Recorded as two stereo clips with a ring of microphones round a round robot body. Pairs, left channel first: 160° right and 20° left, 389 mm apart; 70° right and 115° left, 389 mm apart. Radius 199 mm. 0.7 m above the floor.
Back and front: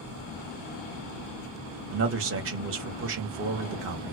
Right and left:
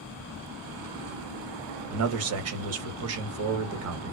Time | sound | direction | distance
1.9 | a man speaking | 70° left | 1.1 m